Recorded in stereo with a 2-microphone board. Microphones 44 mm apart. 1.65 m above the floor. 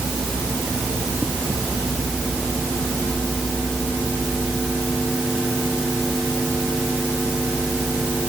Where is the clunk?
I don't hear a clunk.